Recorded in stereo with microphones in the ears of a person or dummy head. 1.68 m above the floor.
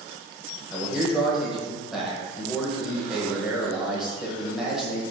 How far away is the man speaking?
About 1.2 m.